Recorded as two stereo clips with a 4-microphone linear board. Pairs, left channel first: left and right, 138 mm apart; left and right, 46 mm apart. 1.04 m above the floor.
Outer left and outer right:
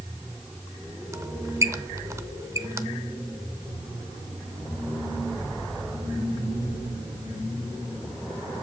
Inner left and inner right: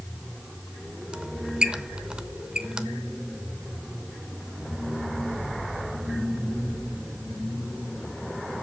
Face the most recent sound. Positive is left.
turn(degrees=-20)  # may be behind; listen again after turning